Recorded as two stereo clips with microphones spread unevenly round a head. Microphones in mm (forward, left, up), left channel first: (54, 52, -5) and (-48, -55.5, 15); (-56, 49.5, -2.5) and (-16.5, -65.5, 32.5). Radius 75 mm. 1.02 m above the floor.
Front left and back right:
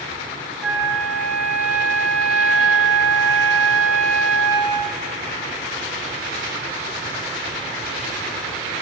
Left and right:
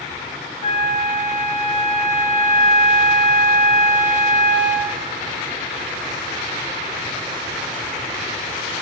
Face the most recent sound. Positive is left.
turn(degrees=140)